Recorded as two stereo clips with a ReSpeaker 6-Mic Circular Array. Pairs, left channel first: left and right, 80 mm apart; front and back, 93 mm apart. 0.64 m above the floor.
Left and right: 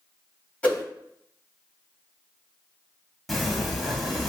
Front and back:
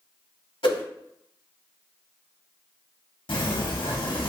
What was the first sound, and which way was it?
A whoosh, 15° left.